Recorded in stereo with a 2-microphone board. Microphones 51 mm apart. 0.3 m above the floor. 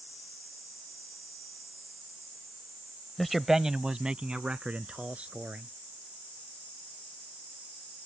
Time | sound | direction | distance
3.2 | a man speaking | 5° left (ahead or behind) | ?